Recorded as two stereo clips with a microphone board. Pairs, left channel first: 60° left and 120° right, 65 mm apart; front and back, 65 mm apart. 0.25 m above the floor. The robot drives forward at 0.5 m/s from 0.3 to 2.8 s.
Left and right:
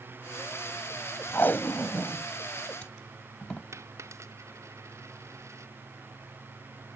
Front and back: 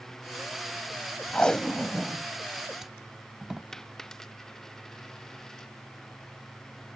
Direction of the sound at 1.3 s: 60° left.